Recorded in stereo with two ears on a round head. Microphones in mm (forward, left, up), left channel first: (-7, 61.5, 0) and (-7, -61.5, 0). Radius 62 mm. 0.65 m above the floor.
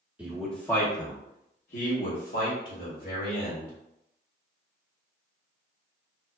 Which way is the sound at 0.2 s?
10° right (ahead or behind).